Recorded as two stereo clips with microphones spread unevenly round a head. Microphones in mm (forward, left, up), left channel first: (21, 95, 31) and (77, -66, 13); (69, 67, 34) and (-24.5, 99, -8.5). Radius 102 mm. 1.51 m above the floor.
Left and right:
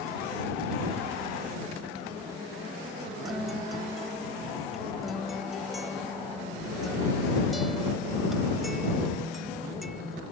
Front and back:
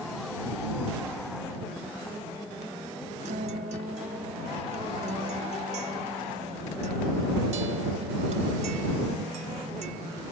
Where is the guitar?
160° right.